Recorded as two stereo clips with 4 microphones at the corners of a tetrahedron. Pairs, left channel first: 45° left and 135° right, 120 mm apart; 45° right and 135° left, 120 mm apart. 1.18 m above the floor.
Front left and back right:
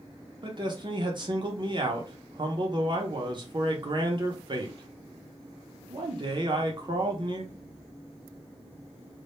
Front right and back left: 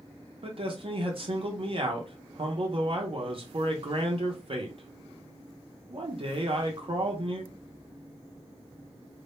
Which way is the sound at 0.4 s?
175° left.